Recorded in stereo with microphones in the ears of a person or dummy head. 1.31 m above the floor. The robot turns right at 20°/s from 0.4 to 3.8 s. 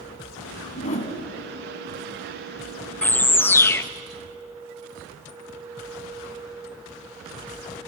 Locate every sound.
0.8 s a whoosh: 45° left (ahead or behind), 2.0 m; by 1.1 s 35° left (ahead or behind), 2.0 m
3.0 s a bird: 5° left (ahead or behind), 0.6 m; by 3.8 s 15° left (ahead or behind), 0.6 m